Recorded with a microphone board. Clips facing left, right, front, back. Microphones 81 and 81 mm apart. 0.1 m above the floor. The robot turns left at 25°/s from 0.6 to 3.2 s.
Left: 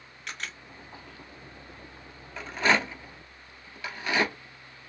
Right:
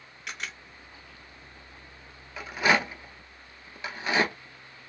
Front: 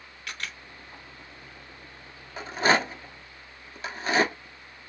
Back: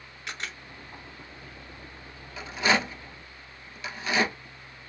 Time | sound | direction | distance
0.3 | a camera shutter | 170° right | 1.1 m
2.4 | a rattle | 10° right | 0.9 m